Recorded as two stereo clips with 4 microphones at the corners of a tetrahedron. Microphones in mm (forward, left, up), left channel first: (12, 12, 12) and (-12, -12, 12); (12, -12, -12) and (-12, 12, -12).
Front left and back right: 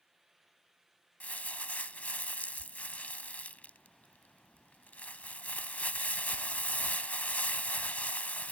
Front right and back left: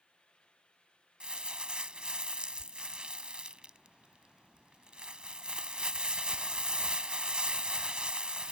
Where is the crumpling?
80° left.